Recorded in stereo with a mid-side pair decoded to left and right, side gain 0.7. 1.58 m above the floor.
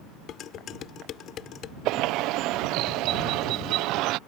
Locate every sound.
0.3 s dishes clattering: 50° left
1.9 s a bird: 60° right